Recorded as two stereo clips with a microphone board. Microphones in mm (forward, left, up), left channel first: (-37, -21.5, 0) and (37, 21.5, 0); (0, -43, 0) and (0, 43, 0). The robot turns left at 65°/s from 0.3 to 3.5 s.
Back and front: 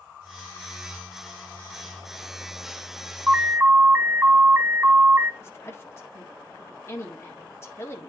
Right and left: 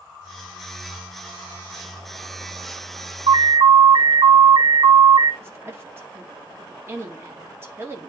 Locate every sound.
3.3 s an alarm: 110° left, 1.0 m; by 5.3 s 90° left, 1.0 m
5.4 s a woman speaking: 150° left, 1.8 m